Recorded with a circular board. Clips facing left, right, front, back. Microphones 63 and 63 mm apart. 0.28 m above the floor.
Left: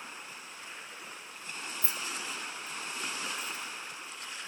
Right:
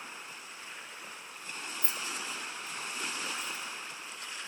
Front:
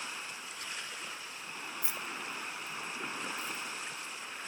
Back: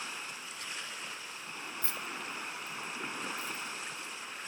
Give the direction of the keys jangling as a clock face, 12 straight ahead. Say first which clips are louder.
Even, even; 2 o'clock.